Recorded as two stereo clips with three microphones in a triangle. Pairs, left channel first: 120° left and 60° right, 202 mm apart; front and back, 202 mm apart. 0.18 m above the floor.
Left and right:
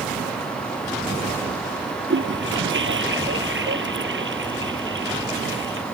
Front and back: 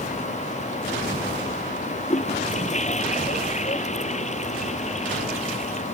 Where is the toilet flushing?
50° right.